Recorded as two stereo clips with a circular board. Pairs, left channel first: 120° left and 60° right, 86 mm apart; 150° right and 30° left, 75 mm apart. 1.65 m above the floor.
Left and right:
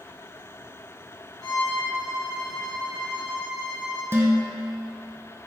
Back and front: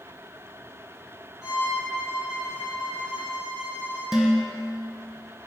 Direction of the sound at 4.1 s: 50° right.